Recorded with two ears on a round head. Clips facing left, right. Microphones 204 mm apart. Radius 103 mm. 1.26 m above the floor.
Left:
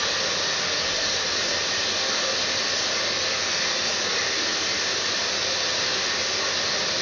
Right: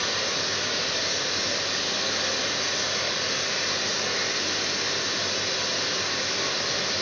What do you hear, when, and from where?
0.0 s running water: 65° left (ahead or behind), 1.6 m